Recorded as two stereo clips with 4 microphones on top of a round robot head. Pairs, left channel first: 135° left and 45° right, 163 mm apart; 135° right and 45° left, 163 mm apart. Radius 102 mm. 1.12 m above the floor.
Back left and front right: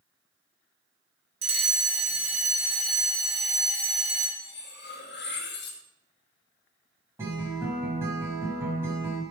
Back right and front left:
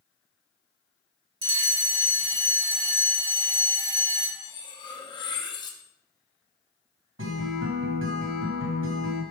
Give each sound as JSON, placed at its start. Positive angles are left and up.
{"t": 1.4, "sound": "a fire alarm", "azimuth_deg": 0, "distance_m": 2.0}
{"t": 4.4, "sound": "cutlery clinking", "azimuth_deg": 160, "distance_m": 1.1}
{"t": 7.2, "sound": "a guitar", "azimuth_deg": 30, "distance_m": 1.5}